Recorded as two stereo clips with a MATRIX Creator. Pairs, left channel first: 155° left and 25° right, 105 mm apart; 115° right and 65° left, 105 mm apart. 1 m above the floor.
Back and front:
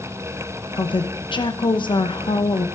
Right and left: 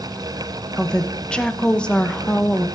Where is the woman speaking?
170° left, 0.8 m.